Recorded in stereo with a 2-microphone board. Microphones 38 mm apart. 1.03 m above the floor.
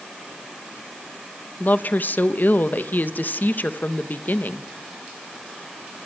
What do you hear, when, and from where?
1.6 s a woman speaking: 55° left (ahead or behind), 1.1 m